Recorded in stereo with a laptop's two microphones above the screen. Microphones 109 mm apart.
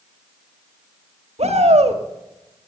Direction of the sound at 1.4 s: 75° right (ahead or behind).